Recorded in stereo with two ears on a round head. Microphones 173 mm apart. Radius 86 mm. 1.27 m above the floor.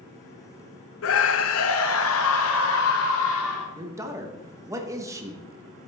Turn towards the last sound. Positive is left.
turn(degrees=-15)  # may be behind; listen again after turning